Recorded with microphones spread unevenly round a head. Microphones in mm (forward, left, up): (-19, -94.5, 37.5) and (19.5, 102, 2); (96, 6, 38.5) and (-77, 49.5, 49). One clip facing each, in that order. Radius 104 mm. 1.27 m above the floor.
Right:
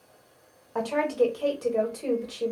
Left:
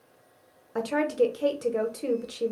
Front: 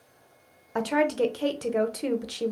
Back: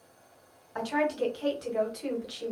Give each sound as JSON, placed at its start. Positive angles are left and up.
{"t": 0.8, "sound": "a woman speaking", "azimuth_deg": 10, "distance_m": 0.7}